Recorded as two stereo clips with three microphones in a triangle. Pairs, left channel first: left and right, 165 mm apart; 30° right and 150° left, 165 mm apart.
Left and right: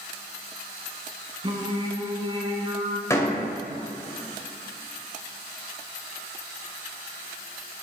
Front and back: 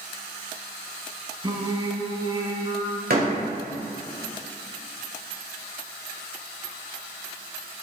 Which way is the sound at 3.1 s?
160° left.